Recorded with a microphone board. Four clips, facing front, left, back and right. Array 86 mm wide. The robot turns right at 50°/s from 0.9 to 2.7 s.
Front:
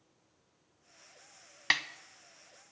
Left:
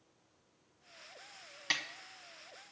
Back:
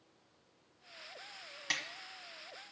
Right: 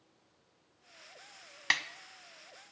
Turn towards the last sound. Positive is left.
turn(degrees=10)